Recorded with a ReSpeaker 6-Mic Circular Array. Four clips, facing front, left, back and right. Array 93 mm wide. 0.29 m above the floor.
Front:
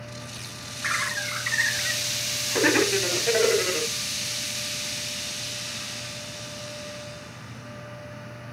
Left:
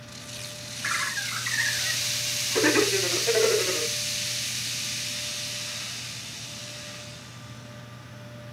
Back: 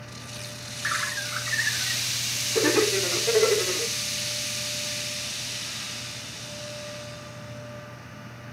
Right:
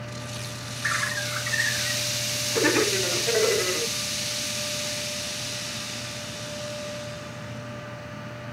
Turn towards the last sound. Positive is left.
turn(degrees=0)